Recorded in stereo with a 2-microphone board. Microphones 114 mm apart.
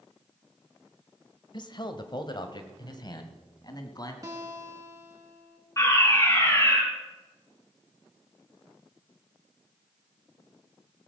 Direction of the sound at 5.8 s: 25° left (ahead or behind).